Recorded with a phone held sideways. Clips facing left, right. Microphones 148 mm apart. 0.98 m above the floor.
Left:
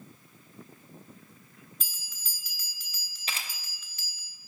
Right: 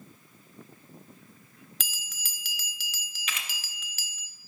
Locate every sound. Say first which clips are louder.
1.8 s a bell: right 6 dB; 80° right, 0.6 m
3.3 s a camera shutter: even; 35° left (ahead or behind), 0.6 m